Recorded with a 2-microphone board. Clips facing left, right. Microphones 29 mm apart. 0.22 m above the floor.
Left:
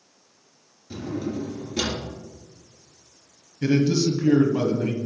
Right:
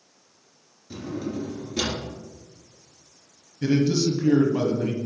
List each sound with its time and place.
0.9 s a drawer: 5° left (ahead or behind), 2 m
3.6 s a man speaking: 15° left (ahead or behind), 1.0 m